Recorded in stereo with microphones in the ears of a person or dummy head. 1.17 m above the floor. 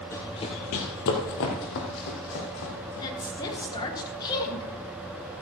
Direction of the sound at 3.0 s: 25° left (ahead or behind).